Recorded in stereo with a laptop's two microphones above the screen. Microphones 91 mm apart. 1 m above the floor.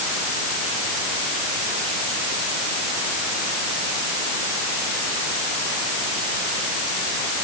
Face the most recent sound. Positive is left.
No sound to turn to.